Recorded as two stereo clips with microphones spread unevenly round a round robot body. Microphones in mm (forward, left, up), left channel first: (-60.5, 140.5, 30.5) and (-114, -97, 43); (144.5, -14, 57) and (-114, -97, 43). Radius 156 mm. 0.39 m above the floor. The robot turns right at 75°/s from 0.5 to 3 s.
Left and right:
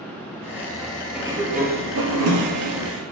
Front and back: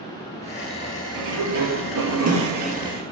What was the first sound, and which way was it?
A sliding door, 175° left.